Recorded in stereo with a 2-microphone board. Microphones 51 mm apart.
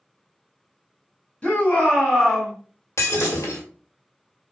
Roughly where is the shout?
Left.